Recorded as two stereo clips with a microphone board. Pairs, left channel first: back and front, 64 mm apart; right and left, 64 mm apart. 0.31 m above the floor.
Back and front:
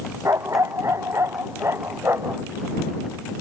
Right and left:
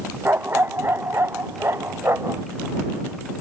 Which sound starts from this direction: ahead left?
A dog barking, at 0.2 s.